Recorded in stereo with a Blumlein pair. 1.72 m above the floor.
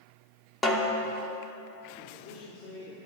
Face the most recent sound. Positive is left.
turn(degrees=50)